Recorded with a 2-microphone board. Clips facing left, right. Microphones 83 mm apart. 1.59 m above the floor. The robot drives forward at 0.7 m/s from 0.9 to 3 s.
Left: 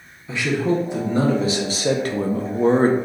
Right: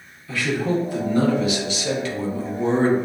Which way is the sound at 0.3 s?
20° left (ahead or behind).